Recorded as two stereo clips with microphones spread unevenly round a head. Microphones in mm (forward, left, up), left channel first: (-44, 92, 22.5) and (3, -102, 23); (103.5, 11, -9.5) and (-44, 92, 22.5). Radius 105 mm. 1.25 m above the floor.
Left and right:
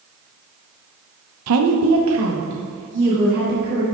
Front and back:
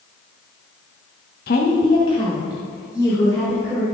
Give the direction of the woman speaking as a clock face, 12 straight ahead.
3 o'clock.